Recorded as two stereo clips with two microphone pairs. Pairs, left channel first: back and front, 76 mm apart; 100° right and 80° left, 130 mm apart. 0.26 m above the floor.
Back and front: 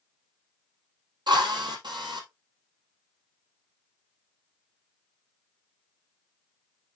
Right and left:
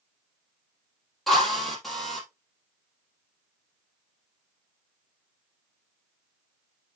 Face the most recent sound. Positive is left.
turn(degrees=-10)